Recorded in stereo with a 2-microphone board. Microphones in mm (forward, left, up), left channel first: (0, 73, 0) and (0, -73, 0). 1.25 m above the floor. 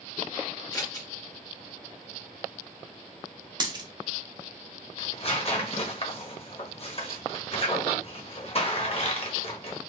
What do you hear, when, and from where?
0.7 s scissors: 25° left (ahead or behind), 1.1 m
3.6 s a dropped coin: 30° right (ahead or behind), 0.7 m
5.0 s tearing paper: 45° left (ahead or behind), 0.7 m